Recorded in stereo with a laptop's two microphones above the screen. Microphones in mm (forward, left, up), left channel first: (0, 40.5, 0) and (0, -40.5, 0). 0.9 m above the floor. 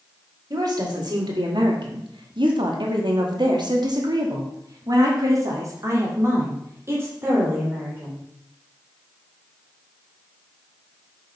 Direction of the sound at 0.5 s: 50° right (ahead or behind).